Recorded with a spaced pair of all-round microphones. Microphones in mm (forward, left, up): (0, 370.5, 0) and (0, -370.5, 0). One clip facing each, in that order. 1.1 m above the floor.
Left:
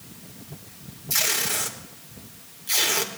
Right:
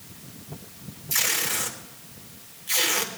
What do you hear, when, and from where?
1.1 s tape being pulled: 65° left (ahead or behind), 1.6 m